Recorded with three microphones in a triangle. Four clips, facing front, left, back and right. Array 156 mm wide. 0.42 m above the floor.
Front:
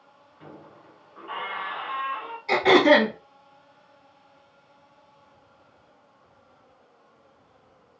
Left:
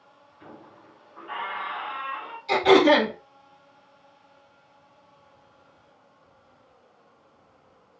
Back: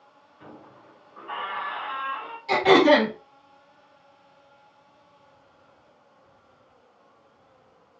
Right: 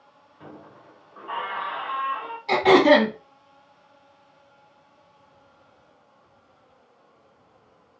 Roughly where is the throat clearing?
Right.